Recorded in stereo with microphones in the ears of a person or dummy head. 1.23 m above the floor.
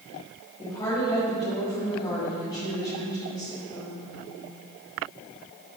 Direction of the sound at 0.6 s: 25° left (ahead or behind).